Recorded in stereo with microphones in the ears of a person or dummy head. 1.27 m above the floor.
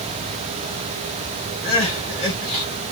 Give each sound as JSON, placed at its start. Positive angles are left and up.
{"t": 1.6, "sound": "crying", "side_deg": 30, "distance_m": 2.5}